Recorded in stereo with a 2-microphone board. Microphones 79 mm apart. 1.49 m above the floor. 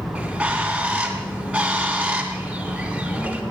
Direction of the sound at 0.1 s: 15° right (ahead or behind).